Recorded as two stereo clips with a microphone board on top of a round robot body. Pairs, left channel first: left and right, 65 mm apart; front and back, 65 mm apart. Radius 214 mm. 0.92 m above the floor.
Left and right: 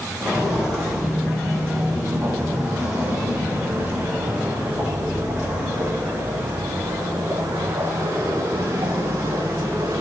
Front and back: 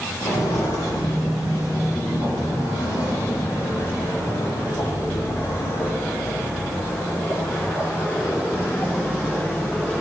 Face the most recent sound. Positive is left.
turn(degrees=-60)